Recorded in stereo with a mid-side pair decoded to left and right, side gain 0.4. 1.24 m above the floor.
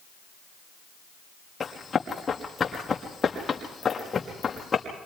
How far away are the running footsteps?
About 6 m.